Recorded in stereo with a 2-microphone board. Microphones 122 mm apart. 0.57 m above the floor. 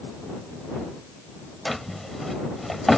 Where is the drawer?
Centre (ahead or behind).